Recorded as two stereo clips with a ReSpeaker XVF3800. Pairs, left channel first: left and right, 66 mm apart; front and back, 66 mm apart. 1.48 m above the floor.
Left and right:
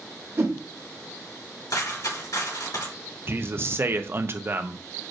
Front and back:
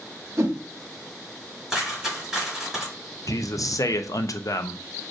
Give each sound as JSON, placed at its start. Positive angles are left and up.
{"t": 0.4, "sound": "a whoosh", "azimuth_deg": -135, "distance_m": 1.0}
{"t": 1.7, "sound": "a dropped coin", "azimuth_deg": 95, "distance_m": 3.5}
{"t": 3.3, "sound": "a man speaking", "azimuth_deg": -35, "distance_m": 0.6}